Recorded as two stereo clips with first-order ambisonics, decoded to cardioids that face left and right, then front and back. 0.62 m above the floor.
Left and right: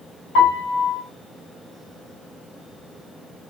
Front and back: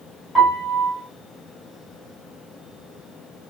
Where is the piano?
100° left, 1.9 m.